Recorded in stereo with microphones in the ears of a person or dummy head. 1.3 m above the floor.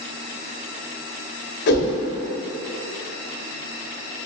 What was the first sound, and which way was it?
A whoosh, 60° left (ahead or behind).